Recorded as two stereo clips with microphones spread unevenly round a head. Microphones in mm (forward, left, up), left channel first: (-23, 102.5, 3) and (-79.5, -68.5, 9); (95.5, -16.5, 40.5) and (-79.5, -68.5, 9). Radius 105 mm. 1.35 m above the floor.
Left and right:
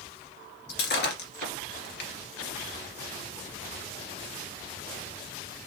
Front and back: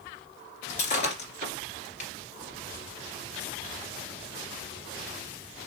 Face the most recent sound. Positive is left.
turn(degrees=60)